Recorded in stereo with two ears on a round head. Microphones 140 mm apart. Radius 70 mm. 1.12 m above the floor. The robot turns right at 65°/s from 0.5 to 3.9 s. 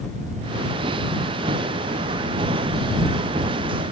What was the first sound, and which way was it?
Only background noise.